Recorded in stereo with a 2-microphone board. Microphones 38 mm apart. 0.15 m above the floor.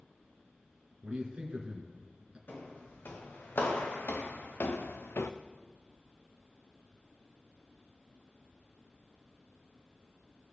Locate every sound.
1.0 s a man speaking: 25° right (ahead or behind), 2 m
2.5 s footsteps: 65° left (ahead or behind), 3 m; by 5.3 s 80° left, 0.6 m